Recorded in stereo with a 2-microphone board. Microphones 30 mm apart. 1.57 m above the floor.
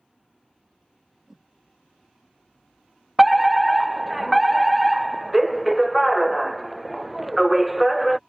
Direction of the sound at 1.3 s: 10° right (ahead or behind).